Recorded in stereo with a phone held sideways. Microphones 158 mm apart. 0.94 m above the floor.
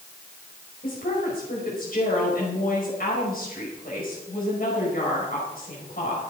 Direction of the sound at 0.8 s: 65° left (ahead or behind).